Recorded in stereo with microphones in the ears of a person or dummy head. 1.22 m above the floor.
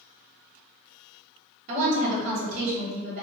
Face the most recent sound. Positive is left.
turn(degrees=-35)  # may be behind; listen again after turning